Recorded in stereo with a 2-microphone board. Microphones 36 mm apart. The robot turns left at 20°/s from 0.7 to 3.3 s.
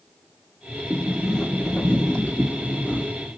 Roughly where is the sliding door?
Behind.